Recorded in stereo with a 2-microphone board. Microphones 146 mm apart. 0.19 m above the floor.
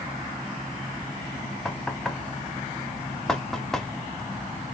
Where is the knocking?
5° left (ahead or behind), 0.8 m.